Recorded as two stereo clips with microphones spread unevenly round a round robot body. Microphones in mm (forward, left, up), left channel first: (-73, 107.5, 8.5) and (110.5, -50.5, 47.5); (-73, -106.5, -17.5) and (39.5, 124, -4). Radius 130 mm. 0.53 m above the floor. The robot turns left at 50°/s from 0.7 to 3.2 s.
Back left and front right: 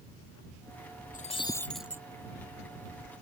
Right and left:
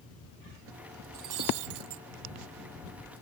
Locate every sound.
1.1 s breaking glass: 80° left; by 2.0 s 35° left